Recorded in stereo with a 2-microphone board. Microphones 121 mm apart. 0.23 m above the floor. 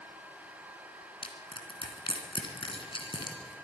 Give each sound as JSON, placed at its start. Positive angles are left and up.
{"t": 1.2, "sound": "crushing", "side_deg": 45, "distance_m": 2.5}